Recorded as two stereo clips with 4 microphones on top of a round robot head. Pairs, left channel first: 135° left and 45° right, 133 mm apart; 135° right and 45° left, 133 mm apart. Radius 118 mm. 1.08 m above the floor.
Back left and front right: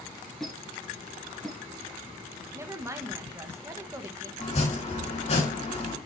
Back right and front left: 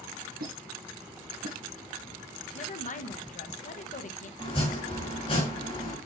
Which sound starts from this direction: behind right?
A woman speaking, at 2.5 s.